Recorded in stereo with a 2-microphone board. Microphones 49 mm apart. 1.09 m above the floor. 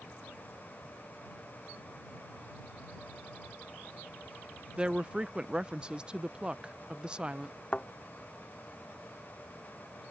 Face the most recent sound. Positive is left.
turn(degrees=25)  # may be behind; listen again after turning